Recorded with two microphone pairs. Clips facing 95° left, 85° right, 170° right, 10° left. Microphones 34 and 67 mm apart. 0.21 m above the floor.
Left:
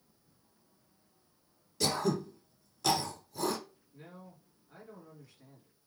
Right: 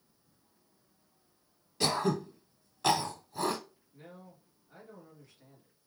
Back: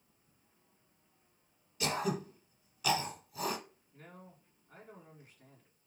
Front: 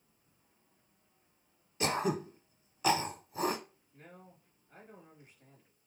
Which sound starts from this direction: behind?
A man speaking, at 3.9 s.